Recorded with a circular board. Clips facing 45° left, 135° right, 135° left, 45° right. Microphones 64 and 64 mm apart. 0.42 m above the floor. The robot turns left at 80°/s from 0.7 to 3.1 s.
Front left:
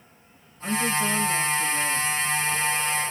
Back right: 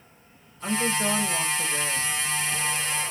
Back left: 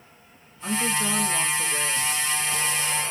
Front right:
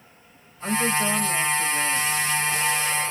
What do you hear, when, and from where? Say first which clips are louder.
0.6 s a woman speaking: front left 1 dB, front right 3 dB; 80° right, 1.1 m; by 2.1 s 165° left, 1.1 m